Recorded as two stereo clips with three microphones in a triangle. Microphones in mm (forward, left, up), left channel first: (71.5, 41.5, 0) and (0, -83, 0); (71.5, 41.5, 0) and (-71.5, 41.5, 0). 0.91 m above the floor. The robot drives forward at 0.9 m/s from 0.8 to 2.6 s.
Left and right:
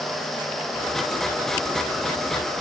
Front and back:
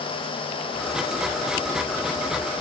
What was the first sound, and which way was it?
Only background noise.